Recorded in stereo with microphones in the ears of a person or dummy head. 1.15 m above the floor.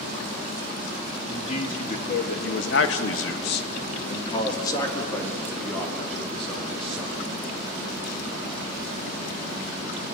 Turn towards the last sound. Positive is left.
turn(degrees=0)  # may be behind; listen again after turning